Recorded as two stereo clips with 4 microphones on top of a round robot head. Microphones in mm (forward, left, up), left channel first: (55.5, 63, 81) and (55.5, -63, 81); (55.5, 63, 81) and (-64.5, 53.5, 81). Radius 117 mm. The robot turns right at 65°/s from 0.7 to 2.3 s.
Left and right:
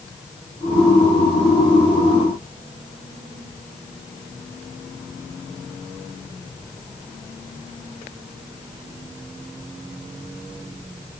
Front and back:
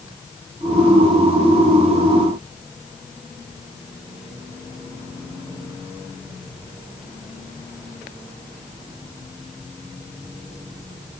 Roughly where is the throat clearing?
I don't hear throat clearing.